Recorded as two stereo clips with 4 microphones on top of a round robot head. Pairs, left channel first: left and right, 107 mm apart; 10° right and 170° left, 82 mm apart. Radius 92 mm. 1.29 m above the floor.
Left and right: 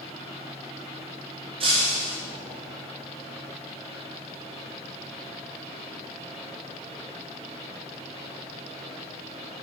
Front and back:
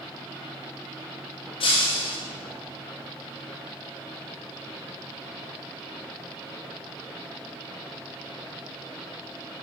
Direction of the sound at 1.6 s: 40° right.